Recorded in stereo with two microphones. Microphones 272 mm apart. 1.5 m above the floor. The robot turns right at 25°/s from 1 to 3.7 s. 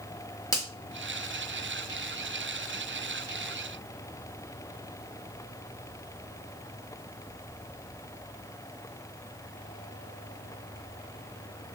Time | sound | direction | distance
0.5 | a finger snap | 10° left (ahead or behind) | 1.0 m